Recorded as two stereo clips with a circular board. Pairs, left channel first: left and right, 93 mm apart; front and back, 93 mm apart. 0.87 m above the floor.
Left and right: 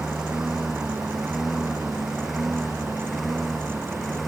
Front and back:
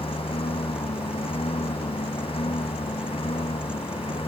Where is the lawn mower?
5° right; by 4.3 s straight ahead.